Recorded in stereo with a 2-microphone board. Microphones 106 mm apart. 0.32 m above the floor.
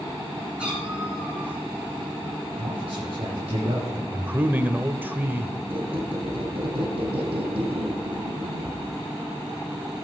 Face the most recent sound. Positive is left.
turn(degrees=-60)  # may be behind; listen again after turning